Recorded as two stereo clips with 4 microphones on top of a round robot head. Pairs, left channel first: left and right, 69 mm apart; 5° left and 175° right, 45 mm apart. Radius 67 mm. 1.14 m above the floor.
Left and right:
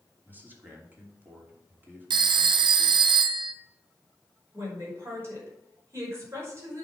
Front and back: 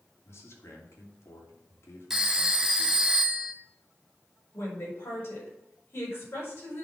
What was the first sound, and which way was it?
A man speaking, 30° right.